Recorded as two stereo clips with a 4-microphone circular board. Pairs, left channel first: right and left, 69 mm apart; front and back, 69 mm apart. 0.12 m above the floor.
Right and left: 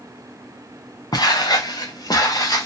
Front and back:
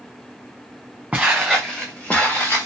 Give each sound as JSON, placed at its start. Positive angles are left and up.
{"t": 1.1, "sound": "footsteps", "azimuth_deg": -100, "distance_m": 1.0}